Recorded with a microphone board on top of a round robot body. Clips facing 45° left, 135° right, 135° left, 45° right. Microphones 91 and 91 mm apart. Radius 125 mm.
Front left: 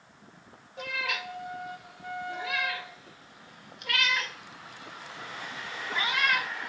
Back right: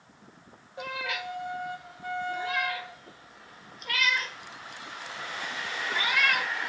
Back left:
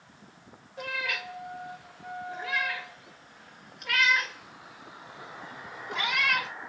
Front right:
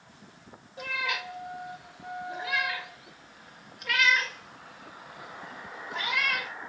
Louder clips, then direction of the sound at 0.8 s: Even, front right 1 dB; 25° left.